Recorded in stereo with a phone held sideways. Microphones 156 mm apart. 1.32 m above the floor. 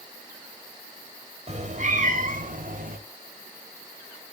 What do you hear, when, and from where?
1.5 s a cat meowing: 50° right (ahead or behind), 2.5 m; by 3.0 s 75° right (ahead or behind), 3 m